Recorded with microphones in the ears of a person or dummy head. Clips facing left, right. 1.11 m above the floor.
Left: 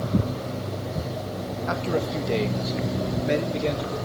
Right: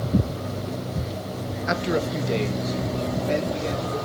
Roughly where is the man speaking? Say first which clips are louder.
Right 2 dB; right.